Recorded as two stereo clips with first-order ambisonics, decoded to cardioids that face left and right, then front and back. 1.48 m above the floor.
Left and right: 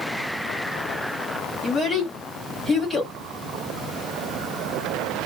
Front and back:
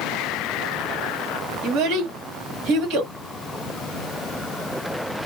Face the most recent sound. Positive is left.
turn(degrees=175)